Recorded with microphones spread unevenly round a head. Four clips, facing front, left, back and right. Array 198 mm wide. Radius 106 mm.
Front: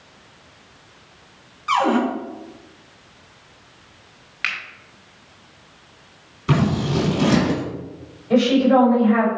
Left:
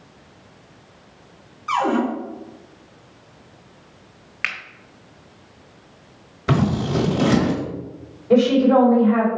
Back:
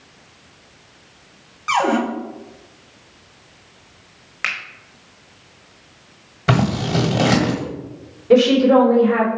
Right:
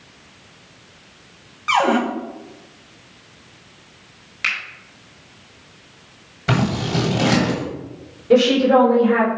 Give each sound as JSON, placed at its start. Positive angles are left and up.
{"t": 1.7, "sound": "a cupboard door", "azimuth_deg": -125, "distance_m": 1.7}
{"t": 4.4, "sound": "a finger snap", "azimuth_deg": 145, "distance_m": 1.0}
{"t": 6.5, "sound": "scissors", "azimuth_deg": 170, "distance_m": 1.5}
{"t": 8.3, "sound": "a woman speaking", "azimuth_deg": -155, "distance_m": 3.5}